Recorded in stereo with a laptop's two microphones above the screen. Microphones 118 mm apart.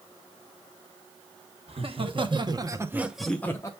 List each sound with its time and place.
1.7 s laughter: 55° right (ahead or behind), 1.3 m; by 3.7 s 25° left (ahead or behind), 0.7 m